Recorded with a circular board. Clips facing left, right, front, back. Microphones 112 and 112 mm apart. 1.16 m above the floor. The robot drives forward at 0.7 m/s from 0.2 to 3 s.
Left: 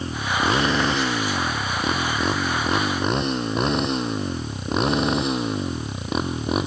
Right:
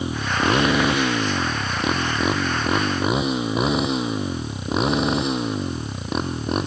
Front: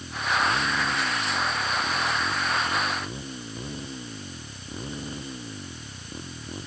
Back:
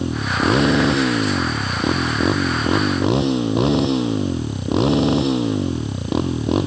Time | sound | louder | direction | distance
0.0 | a motorcycle | right 1 dB, back 6 dB | 170° right | ?